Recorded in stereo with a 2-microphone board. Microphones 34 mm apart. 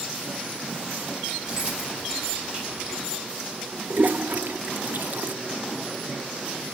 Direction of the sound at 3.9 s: 55° right (ahead or behind).